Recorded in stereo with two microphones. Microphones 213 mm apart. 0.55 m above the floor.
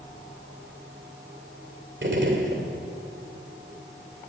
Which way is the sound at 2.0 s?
55° right (ahead or behind).